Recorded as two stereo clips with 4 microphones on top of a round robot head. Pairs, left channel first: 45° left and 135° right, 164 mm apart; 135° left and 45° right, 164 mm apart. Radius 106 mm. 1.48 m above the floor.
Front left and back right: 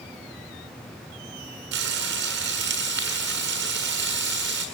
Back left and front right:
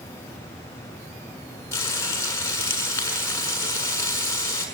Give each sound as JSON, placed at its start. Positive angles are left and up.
{"t": 1.7, "sound": "frying", "azimuth_deg": -150, "distance_m": 7.0}